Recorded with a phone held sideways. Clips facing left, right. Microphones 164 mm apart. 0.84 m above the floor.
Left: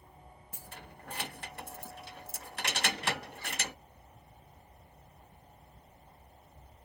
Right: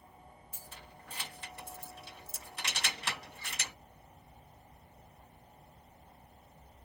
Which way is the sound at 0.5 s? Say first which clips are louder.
Left 5 dB; 60° left (ahead or behind).